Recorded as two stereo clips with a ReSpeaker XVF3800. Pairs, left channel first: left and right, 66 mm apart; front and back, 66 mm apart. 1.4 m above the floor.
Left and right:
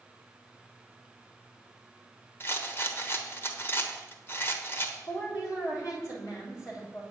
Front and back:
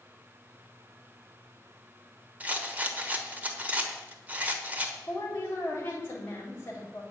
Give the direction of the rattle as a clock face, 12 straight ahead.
8 o'clock.